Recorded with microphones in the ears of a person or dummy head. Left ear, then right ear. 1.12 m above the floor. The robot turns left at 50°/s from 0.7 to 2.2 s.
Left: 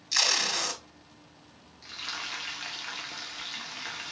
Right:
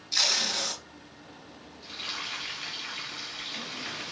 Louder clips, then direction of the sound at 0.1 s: Even; 55° left (ahead or behind).